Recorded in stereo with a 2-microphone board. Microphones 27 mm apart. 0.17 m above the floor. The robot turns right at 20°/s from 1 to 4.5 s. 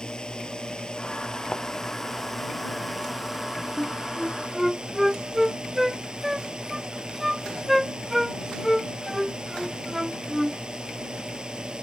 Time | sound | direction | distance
0.0 | a drone | 145° left | ?
1.5 | a thud | 35° left (ahead or behind) | ?
3.8 | a flute | 5° left (ahead or behind) | ?